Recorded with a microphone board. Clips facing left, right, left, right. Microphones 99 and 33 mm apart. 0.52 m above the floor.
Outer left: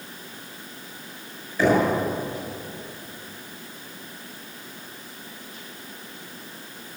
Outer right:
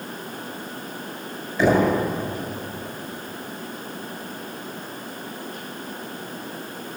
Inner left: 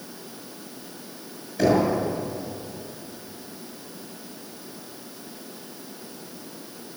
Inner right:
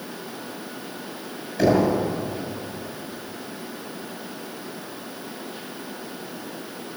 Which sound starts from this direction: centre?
Knocking, at 1.6 s.